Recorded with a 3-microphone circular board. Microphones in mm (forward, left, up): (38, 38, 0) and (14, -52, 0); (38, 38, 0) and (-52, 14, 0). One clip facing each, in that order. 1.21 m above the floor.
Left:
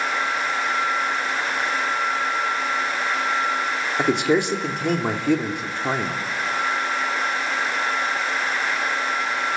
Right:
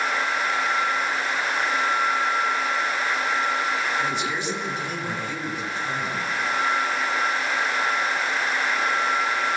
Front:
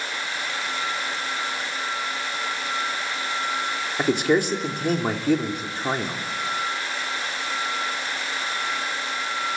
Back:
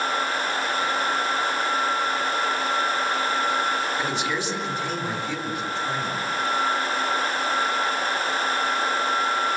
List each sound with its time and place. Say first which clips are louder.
4.0 s a man speaking: left 7 dB, front 6 dB; 50° left, 3 m